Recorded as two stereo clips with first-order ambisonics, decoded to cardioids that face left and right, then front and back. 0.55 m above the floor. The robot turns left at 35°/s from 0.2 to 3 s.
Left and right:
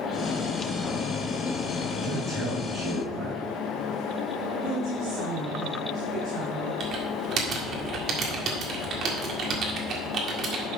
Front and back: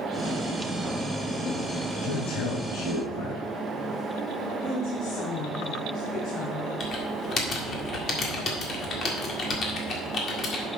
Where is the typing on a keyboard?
50° right, 1.7 m.